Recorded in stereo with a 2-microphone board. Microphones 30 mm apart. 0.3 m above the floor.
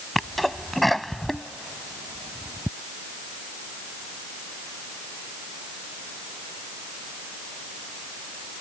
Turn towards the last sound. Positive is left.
turn(degrees=0)  # may be behind; listen again after turning